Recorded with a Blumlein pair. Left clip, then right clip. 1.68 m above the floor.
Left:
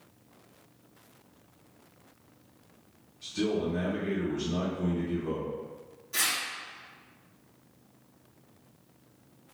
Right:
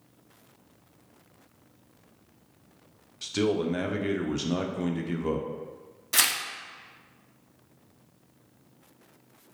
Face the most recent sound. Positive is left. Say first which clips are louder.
# right 4 dB
turn(degrees=-55)